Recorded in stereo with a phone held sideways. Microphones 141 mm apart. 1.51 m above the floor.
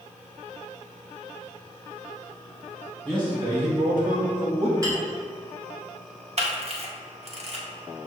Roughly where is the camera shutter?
Right.